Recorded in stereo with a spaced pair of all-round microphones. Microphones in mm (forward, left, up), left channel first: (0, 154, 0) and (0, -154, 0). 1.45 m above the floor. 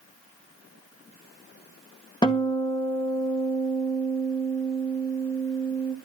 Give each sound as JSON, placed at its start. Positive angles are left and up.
{"t": 2.2, "sound": "a guitar", "side_deg": 15, "distance_m": 2.0}